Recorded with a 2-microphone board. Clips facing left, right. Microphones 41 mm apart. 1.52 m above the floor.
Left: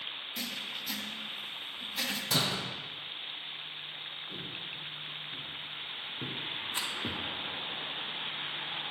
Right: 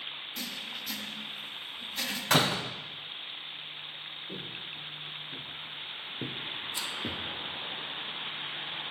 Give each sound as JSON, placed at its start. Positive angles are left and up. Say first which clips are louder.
{"t": 0.4, "sound": "writing", "louder": "left 1 dB", "side_deg": 5, "distance_m": 1.0}
{"t": 2.3, "sound": "a door slam", "louder": "right 7 dB", "side_deg": -55, "distance_m": 0.5}
{"t": 4.3, "sound": "footsteps", "louder": "even", "side_deg": -65, "distance_m": 3.0}
{"t": 6.7, "sound": "a rattle", "louder": "left 2 dB", "side_deg": 35, "distance_m": 1.1}